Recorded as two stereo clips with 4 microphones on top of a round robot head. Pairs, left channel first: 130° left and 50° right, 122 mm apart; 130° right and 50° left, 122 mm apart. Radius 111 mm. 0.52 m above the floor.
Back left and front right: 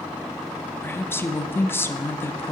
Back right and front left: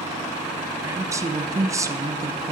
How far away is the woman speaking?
About 0.7 m.